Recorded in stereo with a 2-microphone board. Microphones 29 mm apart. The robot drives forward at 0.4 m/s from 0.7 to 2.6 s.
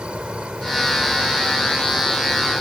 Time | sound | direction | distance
0.0 | an insect | 40° right (ahead or behind) | ?